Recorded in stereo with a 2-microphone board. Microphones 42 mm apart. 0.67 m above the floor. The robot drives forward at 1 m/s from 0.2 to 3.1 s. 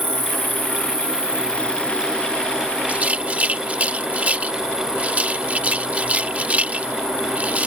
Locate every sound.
0.0 s an insect: 65° right (ahead or behind); by 7.7 s 15° right (ahead or behind)
2.9 s a rattle: 40° right (ahead or behind); by 7.7 s 35° right (ahead or behind)